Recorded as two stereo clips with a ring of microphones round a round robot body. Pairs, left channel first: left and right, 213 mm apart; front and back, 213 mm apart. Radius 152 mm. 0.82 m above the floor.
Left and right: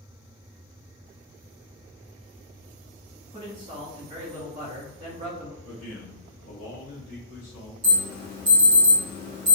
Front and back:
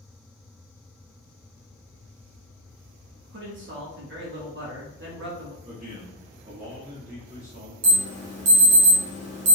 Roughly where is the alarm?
Behind.